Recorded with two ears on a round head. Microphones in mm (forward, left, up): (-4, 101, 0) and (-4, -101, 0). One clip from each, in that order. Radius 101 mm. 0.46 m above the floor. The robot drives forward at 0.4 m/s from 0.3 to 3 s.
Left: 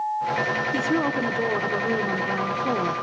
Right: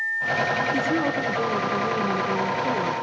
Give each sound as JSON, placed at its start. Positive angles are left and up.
{"t": 0.7, "sound": "a woman speaking", "side_deg": 20, "distance_m": 1.3}